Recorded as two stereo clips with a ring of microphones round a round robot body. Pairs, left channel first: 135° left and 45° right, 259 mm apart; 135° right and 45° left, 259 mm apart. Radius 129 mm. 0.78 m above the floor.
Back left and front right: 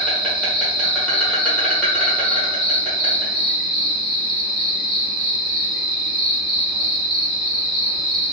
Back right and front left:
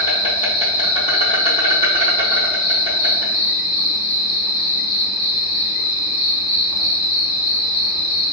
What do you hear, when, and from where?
0.0 s an insect: 145° right, 1.2 m